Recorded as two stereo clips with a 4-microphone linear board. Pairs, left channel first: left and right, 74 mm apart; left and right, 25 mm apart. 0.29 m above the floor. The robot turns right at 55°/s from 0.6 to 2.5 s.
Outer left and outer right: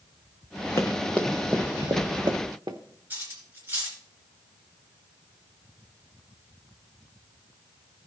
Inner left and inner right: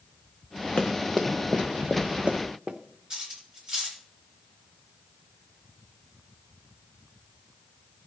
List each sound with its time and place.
0.8 s running footsteps: 50° left (ahead or behind), 1.2 m; by 2.8 s 70° right (ahead or behind), 1.6 m
3.1 s cutlery clinking: 30° right (ahead or behind), 3 m